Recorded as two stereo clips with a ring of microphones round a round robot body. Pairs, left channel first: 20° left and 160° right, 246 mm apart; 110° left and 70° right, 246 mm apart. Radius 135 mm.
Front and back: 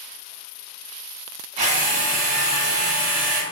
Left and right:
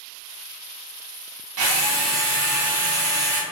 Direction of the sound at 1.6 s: 95° right.